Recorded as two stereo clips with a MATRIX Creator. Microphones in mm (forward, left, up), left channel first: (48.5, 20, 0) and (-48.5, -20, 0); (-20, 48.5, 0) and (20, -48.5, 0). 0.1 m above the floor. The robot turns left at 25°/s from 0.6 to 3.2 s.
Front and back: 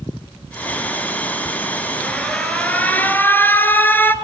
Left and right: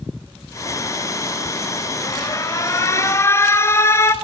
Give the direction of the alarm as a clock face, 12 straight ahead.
9 o'clock.